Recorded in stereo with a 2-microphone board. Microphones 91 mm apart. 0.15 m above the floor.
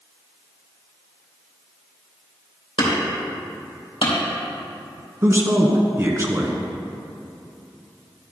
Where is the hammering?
75° left (ahead or behind), 3.5 m.